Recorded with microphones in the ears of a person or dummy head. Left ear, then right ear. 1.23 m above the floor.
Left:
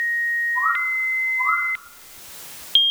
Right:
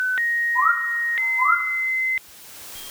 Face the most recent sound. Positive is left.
turn(degrees=-75)  # may be behind; listen again after turning